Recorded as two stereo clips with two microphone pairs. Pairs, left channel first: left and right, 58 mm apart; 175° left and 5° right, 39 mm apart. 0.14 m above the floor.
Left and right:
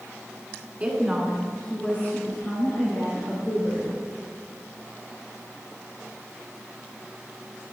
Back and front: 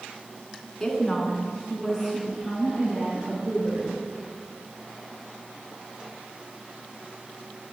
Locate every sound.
0.8 s a woman speaking: 120° right, 1.4 m; by 3.9 s 60° left, 3 m